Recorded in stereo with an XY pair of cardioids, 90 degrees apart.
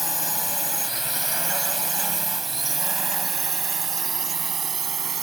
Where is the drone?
10° left; by 5.2 s 50° right.